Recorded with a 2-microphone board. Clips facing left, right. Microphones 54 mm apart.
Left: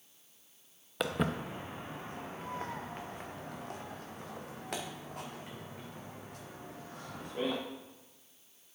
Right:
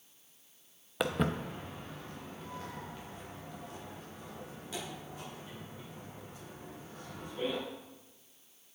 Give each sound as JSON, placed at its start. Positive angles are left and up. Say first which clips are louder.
{"t": 1.0, "sound": "footsteps", "louder": "right 1 dB", "side_deg": -5, "distance_m": 0.7}